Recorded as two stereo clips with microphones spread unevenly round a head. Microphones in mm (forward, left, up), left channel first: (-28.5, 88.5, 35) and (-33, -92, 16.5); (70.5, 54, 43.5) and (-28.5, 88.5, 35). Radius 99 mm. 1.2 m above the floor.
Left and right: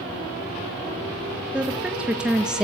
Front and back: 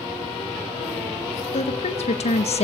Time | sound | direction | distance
1.5 | a woman speaking | 10° right | 2.5 m